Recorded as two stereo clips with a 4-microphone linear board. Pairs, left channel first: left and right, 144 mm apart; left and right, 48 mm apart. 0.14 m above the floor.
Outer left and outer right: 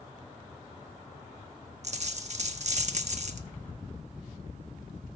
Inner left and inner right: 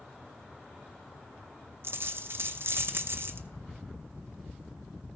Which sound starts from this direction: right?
A dropped coin, at 1.8 s.